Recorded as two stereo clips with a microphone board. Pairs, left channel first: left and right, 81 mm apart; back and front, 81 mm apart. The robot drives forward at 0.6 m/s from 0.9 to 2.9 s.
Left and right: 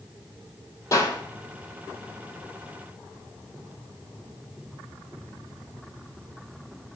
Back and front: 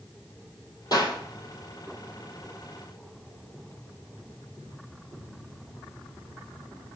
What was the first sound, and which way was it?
A clap, 135° left.